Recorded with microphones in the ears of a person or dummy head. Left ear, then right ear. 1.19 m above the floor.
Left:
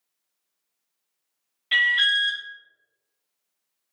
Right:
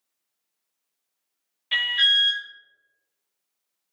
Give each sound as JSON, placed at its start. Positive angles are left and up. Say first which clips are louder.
{"t": 1.7, "sound": "an alarm", "louder": "even", "side_deg": 0, "distance_m": 0.7}